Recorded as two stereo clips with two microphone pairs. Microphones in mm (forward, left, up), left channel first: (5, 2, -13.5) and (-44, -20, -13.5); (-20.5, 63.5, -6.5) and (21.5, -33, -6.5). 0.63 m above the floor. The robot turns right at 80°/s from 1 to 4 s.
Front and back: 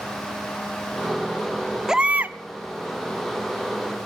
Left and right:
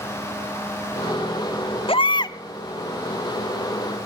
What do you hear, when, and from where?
1.9 s a baby crying: 125° left, 0.5 m; by 2.4 s 165° left, 0.5 m